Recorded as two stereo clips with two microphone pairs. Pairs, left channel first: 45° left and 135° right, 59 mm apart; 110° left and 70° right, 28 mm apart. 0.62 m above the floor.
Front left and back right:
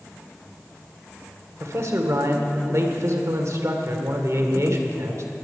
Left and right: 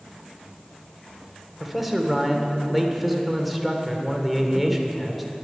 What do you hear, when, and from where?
1.6 s a man speaking: 155° right, 1.7 m